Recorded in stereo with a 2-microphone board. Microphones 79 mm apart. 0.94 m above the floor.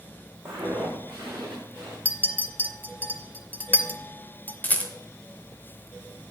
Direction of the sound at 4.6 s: 20° left (ahead or behind).